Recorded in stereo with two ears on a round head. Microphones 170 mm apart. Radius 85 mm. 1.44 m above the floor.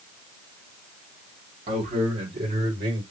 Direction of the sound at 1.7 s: 35° right (ahead or behind).